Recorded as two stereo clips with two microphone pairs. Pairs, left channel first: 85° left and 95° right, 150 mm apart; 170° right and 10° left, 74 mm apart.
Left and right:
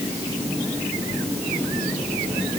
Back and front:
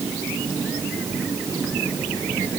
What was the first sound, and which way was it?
Only background noise.